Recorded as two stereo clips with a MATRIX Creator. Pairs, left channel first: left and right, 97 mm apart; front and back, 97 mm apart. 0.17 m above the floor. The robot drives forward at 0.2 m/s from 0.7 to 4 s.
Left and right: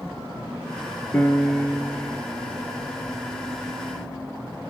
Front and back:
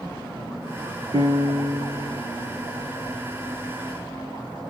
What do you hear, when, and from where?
1.1 s a piano: 165° left, 1.5 m